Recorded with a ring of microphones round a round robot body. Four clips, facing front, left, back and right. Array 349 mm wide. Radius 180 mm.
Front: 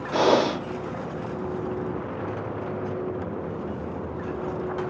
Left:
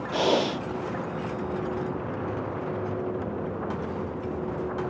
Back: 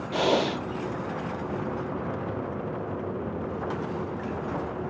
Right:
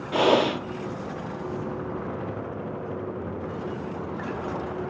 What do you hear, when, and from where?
0.1 s breathing: 40° right, 1.1 m